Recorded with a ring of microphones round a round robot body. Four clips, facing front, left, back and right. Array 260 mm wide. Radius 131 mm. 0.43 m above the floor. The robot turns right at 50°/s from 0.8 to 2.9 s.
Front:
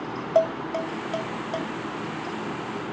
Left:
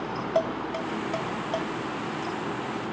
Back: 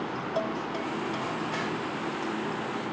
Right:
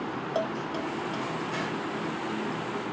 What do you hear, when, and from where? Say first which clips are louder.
0.3 s dishes clattering: left 4 dB, front 10 dB; 15° left, 1.5 m; by 1.7 s 60° left, 1.5 m